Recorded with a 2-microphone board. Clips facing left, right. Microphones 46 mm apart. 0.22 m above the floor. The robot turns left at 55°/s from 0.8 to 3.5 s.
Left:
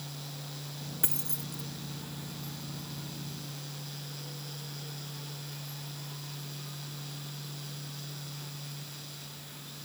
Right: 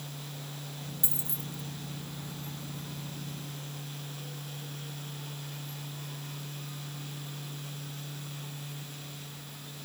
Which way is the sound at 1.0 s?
55° left (ahead or behind).